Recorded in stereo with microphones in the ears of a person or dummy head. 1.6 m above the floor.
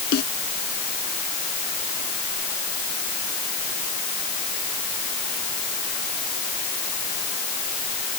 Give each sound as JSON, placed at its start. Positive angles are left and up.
{"t": 0.1, "sound": "a snare drum", "side_deg": 55}